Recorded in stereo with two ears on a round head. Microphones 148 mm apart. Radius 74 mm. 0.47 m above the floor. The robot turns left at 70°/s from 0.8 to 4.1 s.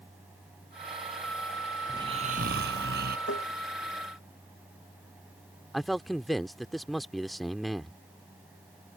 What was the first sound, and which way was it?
Snoring, 20° right.